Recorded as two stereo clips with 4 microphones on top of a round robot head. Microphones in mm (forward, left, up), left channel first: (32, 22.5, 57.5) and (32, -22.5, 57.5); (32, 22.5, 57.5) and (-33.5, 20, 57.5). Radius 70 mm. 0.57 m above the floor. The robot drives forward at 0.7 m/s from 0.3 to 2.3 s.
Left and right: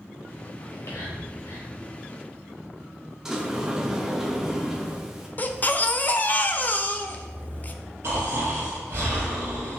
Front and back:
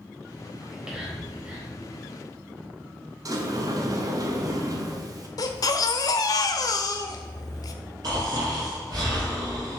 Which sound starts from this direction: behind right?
Snoring, at 8.0 s.